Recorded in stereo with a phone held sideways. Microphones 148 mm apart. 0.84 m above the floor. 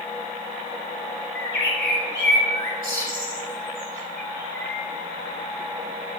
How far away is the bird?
About 3 m.